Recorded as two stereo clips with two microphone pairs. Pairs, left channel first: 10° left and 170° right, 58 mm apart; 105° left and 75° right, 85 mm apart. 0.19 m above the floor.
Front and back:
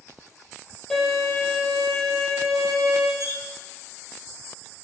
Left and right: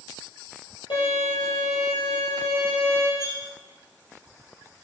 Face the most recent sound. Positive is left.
turn(degrees=45)